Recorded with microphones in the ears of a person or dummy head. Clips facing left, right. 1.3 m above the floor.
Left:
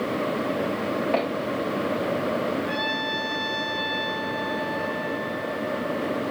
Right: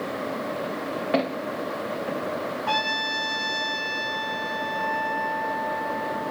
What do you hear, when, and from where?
1.1 s footsteps: 10° right (ahead or behind), 7 m; by 2.2 s 5° right (ahead or behind), 7 m
2.7 s a trumpet: 65° right (ahead or behind), 4.5 m